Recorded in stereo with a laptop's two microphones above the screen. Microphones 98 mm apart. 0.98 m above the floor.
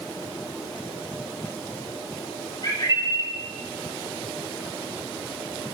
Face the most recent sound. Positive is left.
turn(degrees=45)  # may be behind; listen again after turning